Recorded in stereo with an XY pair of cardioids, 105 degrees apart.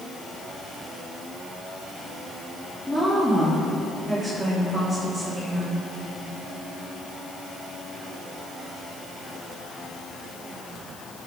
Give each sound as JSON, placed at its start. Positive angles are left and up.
{"t": 2.9, "sound": "a woman speaking", "azimuth_deg": 5, "distance_m": 3.5}